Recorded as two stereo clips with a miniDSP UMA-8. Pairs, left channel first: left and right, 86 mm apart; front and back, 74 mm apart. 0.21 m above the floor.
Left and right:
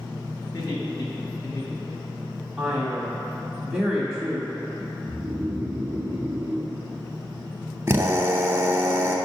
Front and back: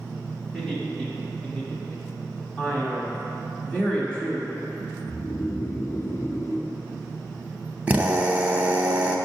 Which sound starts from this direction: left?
Laughter, at 0.5 s.